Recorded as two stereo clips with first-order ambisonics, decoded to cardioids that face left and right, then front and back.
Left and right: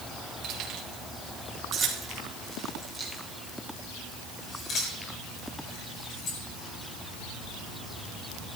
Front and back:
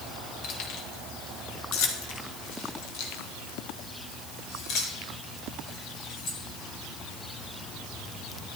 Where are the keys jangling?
35° right, 4 m; by 6.4 s 55° left, 5.5 m.